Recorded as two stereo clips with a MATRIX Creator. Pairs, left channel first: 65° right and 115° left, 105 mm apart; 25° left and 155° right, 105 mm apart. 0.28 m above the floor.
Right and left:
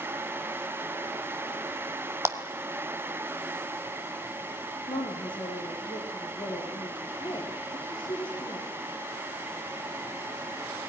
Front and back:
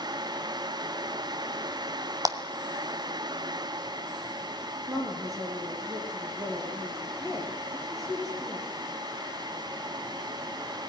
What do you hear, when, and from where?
2.2 s a clap: 165° left, 1.5 m
4.9 s a woman speaking: 105° right, 6 m